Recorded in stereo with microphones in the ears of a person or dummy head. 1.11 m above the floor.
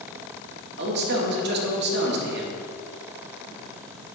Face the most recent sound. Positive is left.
turn(degrees=-60)  # may be behind; listen again after turning